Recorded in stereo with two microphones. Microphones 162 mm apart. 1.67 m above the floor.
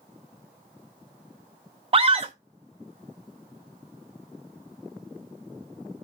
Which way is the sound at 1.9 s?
35° right (ahead or behind).